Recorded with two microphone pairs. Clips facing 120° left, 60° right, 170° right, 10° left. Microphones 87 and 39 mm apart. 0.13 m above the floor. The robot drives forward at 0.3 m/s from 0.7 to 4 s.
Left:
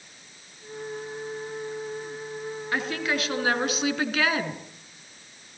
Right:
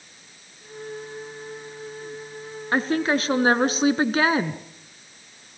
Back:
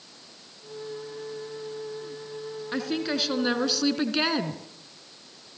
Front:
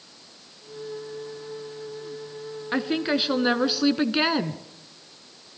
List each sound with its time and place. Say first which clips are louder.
2.7 s a woman speaking: right 7 dB, front 4 dB; 40° right, 1.7 m; by 4.6 s 55° right, 1.6 m